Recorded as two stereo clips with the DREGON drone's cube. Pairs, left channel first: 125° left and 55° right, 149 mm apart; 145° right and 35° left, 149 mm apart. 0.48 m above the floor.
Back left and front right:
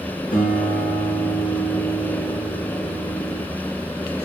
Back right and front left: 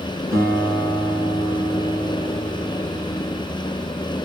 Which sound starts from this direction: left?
A guitar, at 0.3 s.